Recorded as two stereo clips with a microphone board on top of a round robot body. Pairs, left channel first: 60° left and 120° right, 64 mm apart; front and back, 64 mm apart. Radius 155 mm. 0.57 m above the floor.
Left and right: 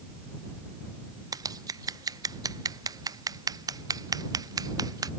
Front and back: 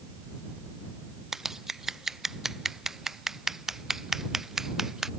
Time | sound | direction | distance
1.3 | scissors | 95° right | ?